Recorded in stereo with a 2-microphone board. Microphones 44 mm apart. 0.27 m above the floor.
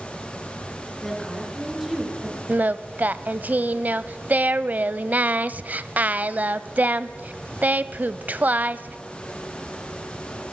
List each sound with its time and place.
1.0 s a woman speaking: 5° left (ahead or behind), 5 m; by 2.4 s 10° right (ahead or behind), 4.5 m
2.5 s singing: 40° right (ahead or behind), 0.6 m